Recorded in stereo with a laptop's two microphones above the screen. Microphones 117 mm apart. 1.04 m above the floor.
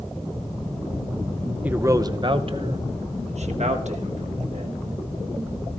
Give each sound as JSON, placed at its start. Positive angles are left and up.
{"t": 1.6, "sound": "a man speaking", "side_deg": -10, "distance_m": 0.6}